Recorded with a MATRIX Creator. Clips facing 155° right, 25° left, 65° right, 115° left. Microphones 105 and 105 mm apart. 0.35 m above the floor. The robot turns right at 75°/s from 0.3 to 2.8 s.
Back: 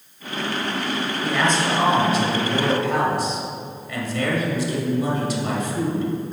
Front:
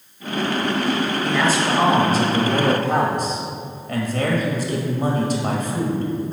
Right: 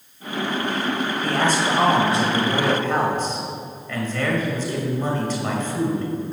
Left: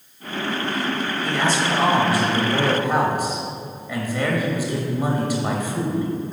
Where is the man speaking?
80° right, 1.5 m; by 6.1 s 40° left, 1.5 m.